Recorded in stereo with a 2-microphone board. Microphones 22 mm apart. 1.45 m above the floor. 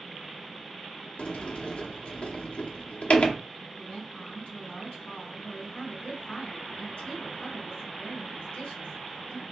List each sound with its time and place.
1.2 s a sliding door: 85° left, 0.7 m
3.8 s a woman speaking: 75° left (ahead or behind), 3 m